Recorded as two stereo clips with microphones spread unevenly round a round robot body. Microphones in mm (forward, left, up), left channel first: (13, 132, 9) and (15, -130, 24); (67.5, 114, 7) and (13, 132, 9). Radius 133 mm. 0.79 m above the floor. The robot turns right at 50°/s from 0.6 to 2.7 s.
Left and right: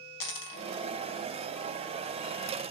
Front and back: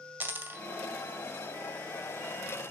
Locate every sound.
0.2 s a dropped coin: 110° left, 2 m